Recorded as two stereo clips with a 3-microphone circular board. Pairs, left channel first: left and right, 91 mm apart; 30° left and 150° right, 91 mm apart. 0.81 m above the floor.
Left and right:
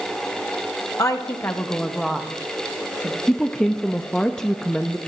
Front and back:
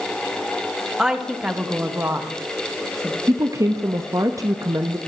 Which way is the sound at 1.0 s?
130° left.